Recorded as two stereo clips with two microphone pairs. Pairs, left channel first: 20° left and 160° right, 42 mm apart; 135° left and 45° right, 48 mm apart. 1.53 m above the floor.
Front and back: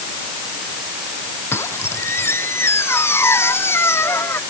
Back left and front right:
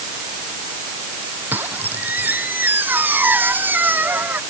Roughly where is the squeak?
Ahead.